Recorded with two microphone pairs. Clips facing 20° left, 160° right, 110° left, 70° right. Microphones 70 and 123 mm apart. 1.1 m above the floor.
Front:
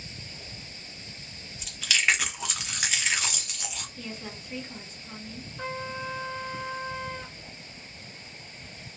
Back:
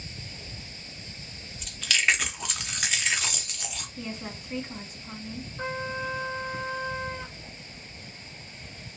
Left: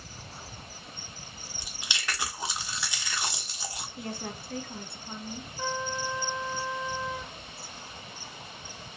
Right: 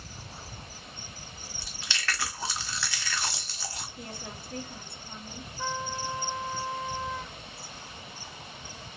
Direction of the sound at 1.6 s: 100° left.